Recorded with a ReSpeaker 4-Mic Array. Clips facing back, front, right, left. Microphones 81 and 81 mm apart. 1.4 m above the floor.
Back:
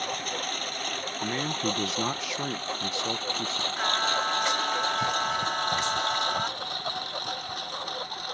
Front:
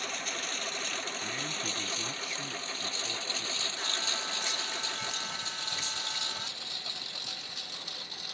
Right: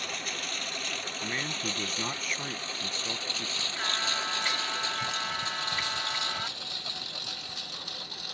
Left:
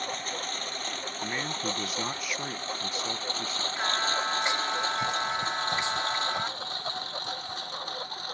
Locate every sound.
0.0 s a lawn mower: 140° left
1.2 s a man speaking: 175° left
3.8 s singing: 155° left